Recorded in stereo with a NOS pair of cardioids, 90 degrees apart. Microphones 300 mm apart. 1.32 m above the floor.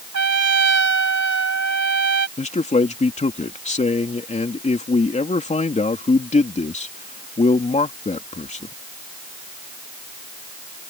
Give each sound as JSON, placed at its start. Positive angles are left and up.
{"t": 0.1, "sound": "a trumpet", "azimuth_deg": -55}
{"t": 2.4, "sound": "a man speaking", "azimuth_deg": 25}